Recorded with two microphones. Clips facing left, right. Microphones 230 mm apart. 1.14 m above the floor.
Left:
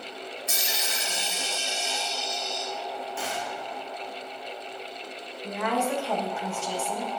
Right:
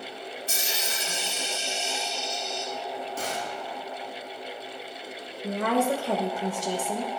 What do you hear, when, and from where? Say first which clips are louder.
0.5 s a dropped coin: right 1 dB; 30° right (ahead or behind), 2 m
3.2 s a gunshot: right 1 dB; 40° right (ahead or behind), 1.2 m
5.4 s a woman speaking: right 3 dB; 40° right (ahead or behind), 1.4 m